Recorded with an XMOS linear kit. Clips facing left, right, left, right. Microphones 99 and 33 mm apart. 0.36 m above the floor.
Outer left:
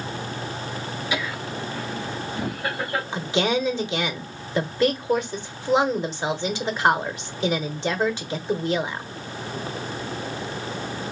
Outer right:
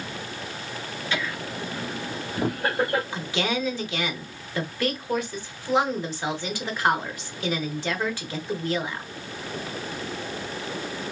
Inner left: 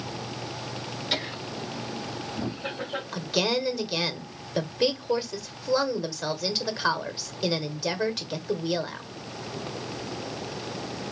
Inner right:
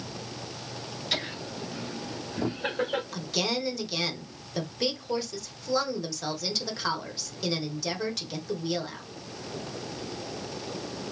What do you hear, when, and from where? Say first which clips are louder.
1.1 s laughter: even, inner left 1 dB; 10° left (ahead or behind), 0.9 m; by 3.0 s 45° right (ahead or behind), 1.3 m
3.1 s a woman speaking: outer left 4 dB, inner left 4 dB; 20° left (ahead or behind), 0.9 m